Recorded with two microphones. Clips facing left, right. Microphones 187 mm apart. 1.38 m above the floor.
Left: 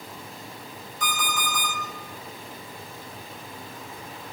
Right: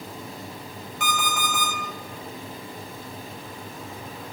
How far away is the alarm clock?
About 1.7 m.